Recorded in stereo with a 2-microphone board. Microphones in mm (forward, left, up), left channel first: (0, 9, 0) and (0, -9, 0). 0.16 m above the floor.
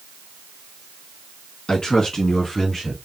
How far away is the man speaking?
About 2.5 m.